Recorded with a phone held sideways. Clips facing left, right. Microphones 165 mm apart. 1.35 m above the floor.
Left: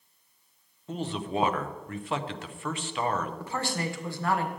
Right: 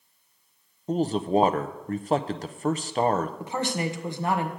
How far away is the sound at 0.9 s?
About 0.6 m.